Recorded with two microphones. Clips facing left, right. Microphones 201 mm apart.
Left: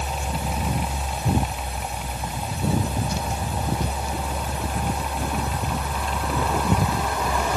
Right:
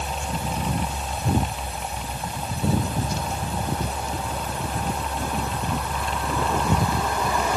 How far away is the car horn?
I don't hear a car horn.